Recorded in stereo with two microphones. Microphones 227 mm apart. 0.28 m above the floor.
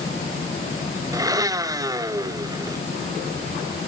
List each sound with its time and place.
1.1 s a blender: 15° right (ahead or behind), 0.6 m